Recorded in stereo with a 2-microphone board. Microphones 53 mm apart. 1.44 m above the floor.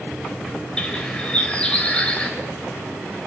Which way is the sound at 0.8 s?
20° left (ahead or behind).